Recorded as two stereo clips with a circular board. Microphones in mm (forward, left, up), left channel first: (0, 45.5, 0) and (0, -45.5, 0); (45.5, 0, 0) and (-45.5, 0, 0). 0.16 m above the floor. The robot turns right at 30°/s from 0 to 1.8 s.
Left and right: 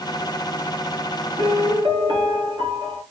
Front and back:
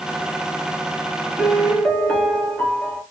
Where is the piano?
90° right, 3.5 m; by 3.0 s 80° right, 3.5 m.